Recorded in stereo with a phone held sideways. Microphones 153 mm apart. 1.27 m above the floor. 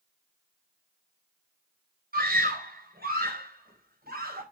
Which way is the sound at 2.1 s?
80° right.